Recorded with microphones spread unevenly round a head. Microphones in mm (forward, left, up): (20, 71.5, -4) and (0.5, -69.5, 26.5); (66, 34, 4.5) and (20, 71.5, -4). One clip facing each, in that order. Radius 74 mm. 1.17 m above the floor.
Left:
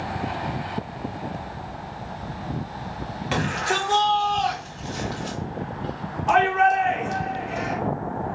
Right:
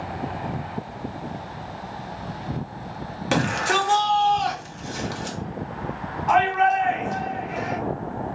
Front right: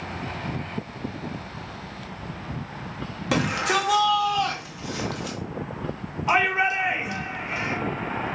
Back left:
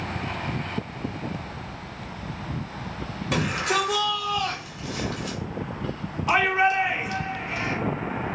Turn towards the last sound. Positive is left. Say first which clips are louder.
# even, back left 1 dB
turn(degrees=25)